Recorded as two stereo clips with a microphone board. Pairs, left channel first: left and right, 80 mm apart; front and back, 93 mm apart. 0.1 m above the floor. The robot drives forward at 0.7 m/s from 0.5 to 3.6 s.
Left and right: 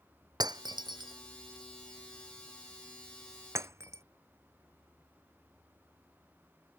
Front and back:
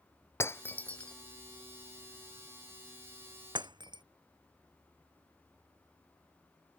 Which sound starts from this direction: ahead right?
Breaking glass, at 0.4 s.